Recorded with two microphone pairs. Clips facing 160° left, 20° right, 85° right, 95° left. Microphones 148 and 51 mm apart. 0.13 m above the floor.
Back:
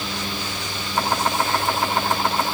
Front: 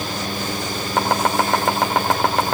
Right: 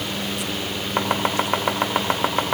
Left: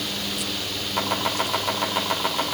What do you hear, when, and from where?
1.0 s chopping: 35° right, 3.5 m